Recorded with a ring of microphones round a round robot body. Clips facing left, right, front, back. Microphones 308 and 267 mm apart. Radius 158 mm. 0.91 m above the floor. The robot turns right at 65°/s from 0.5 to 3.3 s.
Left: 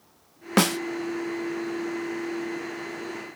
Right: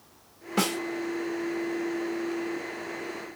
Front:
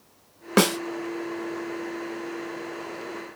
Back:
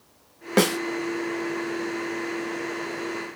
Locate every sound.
0.6 s a snare drum: 80° left, 0.7 m; by 0.8 s 95° left, 0.7 m